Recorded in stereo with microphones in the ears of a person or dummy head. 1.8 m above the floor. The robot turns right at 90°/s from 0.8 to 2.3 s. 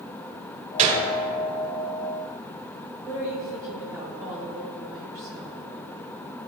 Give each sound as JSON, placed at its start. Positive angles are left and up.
{"t": 0.8, "sound": "a gunshot", "side_deg": -35, "distance_m": 1.1}
{"t": 3.0, "sound": "a woman speaking", "side_deg": -15, "distance_m": 2.5}